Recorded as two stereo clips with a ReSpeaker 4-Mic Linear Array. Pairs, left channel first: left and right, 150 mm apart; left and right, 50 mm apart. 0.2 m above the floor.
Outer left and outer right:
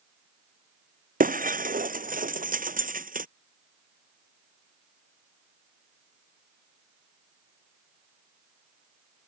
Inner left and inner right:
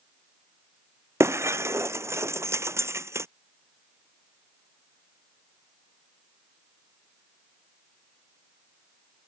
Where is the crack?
No crack in this recording.